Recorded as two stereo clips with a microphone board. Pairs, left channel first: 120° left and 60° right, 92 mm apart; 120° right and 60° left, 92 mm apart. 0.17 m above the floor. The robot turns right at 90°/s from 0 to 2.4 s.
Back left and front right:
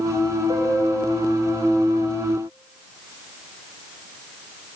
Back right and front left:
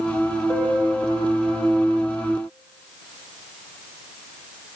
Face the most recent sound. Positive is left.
turn(degrees=110)